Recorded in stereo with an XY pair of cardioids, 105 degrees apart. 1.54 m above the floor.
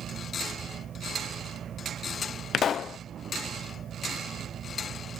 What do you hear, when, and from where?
0.0 s a fan: 50° right
2.5 s a pop: 60° left